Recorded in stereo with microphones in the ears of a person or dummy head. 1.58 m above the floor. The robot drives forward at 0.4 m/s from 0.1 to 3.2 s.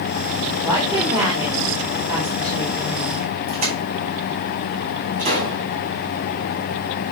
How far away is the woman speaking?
About 3.5 m.